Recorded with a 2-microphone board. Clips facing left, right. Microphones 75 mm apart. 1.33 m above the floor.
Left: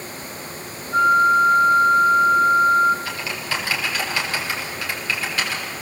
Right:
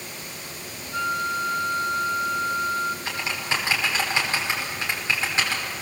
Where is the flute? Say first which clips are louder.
Left 11 dB; 35° left (ahead or behind), 2 m.